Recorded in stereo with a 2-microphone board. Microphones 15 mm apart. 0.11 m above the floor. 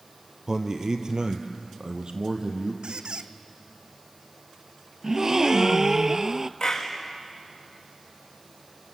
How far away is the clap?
About 6.5 m.